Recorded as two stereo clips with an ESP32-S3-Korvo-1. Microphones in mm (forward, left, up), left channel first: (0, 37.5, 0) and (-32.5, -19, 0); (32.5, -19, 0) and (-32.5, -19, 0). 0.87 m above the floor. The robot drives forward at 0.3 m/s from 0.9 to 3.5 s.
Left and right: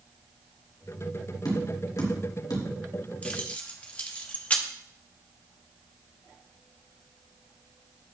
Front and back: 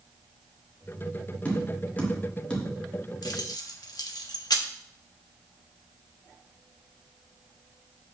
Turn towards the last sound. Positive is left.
turn(degrees=-5)